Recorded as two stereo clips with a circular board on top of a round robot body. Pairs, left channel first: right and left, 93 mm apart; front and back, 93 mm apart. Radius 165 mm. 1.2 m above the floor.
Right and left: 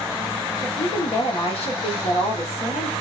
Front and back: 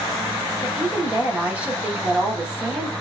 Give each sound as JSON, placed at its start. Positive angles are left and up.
{"t": 0.6, "sound": "a woman speaking", "azimuth_deg": -105, "distance_m": 1.4}